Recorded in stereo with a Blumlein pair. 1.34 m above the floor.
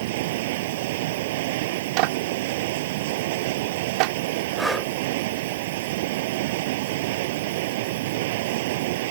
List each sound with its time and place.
0.0 s running water: 50° right
2.0 s a clap: 45° right
4.6 s breathing: straight ahead